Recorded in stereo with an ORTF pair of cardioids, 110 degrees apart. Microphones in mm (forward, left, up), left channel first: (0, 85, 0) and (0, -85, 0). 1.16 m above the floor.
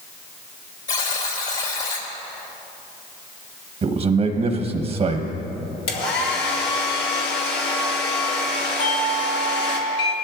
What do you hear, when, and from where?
0.9 s a buzzer: 55° left, 3 m
3.8 s a man speaking: 35° right, 1.1 m
5.9 s a hair dryer: 70° left, 2 m
8.8 s a doorbell: 65° left, 1.8 m